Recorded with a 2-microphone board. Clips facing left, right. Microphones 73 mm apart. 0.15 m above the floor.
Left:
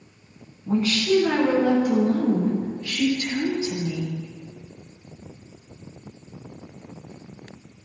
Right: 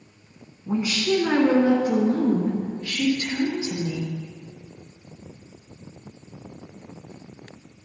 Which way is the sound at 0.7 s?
10° right (ahead or behind).